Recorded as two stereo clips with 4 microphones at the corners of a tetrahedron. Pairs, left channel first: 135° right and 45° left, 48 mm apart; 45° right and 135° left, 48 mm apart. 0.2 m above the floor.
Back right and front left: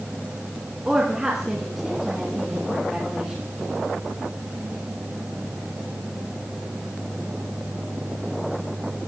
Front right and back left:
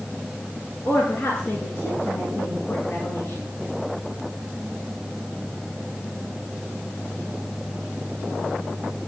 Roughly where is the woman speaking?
Ahead right.